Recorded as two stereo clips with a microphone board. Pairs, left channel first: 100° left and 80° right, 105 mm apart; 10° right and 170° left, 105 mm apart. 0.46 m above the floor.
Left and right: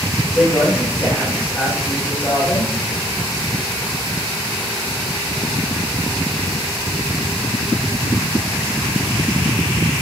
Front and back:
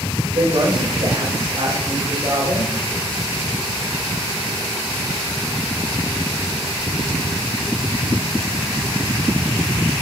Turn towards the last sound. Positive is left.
turn(degrees=170)